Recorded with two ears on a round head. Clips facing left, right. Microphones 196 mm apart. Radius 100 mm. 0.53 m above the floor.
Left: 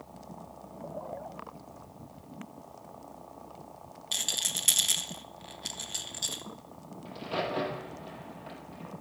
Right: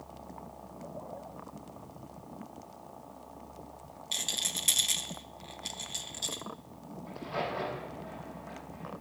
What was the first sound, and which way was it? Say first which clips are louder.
A rattle: even; 5° left (ahead or behind).